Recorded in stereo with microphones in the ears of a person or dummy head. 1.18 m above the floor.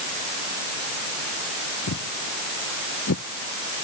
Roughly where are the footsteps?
Left.